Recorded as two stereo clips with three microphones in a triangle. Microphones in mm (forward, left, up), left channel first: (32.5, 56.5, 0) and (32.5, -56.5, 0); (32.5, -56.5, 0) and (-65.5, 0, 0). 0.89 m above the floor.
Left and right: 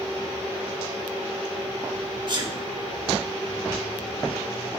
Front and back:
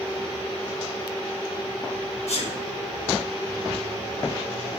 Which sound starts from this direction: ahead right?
A sneeze, at 2.3 s.